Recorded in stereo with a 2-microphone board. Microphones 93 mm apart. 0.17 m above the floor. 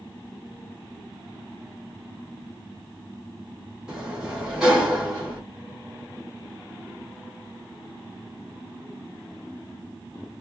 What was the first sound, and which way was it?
A sliding door, 5° right (ahead or behind).